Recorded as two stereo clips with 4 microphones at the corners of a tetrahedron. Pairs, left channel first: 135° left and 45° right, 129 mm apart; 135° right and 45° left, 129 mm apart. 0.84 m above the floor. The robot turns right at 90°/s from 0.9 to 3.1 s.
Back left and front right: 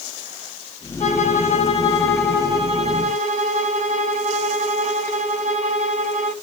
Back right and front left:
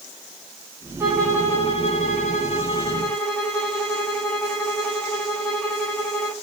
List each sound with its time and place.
1.0 s a violin: 125° left, 2.0 m; by 6.3 s 45° right, 2.0 m